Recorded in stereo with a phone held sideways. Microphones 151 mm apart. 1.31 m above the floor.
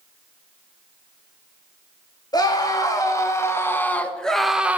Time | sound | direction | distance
2.3 | a scream | 30° left (ahead or behind) | 3 m